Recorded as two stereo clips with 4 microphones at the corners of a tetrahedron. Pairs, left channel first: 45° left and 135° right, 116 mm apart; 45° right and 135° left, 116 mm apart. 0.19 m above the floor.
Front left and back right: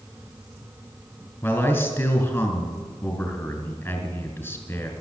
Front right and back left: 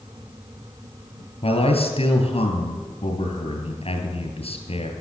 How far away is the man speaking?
About 2.5 m.